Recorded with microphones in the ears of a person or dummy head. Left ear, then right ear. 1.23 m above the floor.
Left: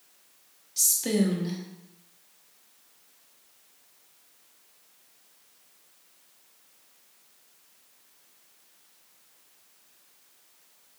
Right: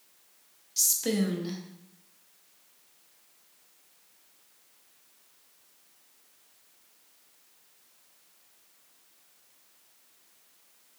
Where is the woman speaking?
10° right (ahead or behind), 0.5 m.